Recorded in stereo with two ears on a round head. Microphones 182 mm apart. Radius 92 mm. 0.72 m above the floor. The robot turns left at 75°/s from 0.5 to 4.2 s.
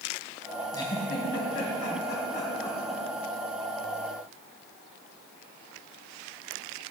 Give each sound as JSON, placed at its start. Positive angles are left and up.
{"t": 0.7, "sound": "a giggle", "side_deg": 15, "distance_m": 3.0}